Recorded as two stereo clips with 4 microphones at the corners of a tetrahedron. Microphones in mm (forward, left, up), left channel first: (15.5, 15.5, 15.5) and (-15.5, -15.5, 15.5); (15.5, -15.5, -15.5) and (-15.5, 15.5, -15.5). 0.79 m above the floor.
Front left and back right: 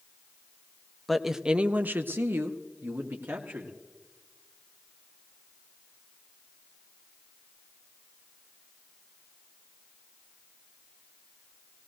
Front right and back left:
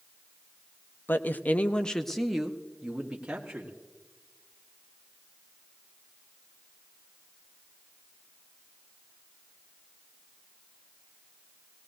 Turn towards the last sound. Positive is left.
turn(degrees=-160)